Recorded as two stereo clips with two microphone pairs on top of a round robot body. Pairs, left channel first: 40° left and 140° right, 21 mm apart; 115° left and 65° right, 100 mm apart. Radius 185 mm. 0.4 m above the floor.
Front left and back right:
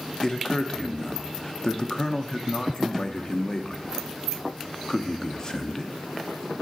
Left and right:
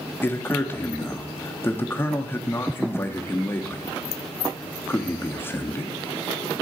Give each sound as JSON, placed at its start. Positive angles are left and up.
{"t": 0.2, "sound": "a man speaking", "azimuth_deg": 75, "distance_m": 0.9}